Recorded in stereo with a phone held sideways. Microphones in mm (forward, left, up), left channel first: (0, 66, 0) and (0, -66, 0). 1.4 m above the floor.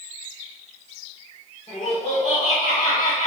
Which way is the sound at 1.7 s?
50° left (ahead or behind).